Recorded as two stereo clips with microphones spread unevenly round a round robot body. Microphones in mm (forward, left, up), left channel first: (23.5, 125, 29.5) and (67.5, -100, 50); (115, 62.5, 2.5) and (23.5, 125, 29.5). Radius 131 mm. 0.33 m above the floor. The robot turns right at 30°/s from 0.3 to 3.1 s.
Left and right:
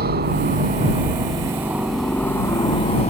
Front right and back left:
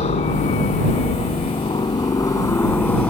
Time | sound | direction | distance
0.0 | a helicopter | 35° right | ?